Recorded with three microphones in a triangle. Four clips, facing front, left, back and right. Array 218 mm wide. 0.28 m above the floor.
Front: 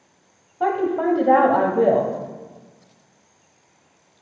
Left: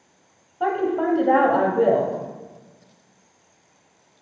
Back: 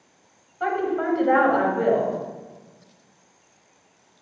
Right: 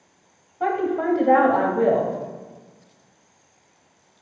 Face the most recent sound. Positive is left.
turn(degrees=20)